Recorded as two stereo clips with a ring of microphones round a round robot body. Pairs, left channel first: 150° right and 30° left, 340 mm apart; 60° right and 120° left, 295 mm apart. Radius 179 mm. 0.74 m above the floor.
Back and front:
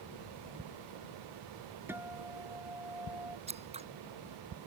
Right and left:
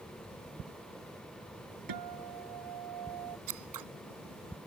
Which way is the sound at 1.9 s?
115° left.